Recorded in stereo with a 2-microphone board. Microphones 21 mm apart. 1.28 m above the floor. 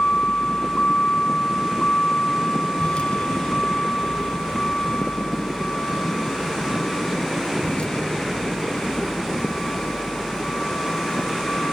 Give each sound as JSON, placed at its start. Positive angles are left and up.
{"t": 0.0, "sound": "a vehicle", "side_deg": 60}